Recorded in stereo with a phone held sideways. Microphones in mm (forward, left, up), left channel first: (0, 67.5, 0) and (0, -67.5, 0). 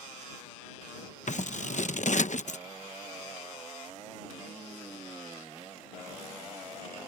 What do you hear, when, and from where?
1.3 s scissors: 65° left (ahead or behind)